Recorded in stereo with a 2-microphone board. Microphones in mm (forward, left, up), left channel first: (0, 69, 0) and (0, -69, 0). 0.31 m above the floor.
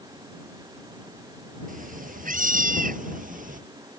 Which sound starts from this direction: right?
A cat meowing, at 1.7 s.